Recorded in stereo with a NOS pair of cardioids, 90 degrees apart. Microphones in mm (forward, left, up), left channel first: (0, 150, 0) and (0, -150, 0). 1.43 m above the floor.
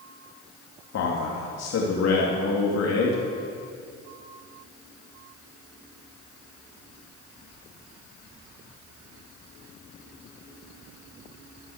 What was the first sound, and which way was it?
A man speaking, 60° left.